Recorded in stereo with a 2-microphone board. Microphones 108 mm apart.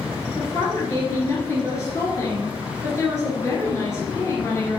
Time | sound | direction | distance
0.4 | a woman speaking | 30° left (ahead or behind) | 2 m